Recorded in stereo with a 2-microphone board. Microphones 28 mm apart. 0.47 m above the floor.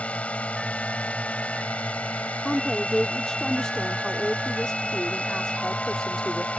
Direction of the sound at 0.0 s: 50° left (ahead or behind).